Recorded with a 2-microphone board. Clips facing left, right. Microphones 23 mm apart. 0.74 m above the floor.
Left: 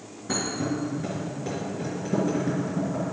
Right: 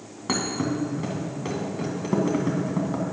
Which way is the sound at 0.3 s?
70° right (ahead or behind).